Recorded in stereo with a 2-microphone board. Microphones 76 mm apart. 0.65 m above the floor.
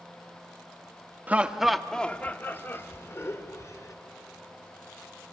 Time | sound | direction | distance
1.3 | laughter | 20° right (ahead or behind) | 0.8 m